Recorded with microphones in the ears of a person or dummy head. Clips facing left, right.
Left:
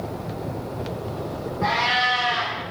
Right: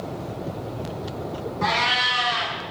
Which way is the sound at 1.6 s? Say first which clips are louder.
Left 3 dB; 75° right (ahead or behind).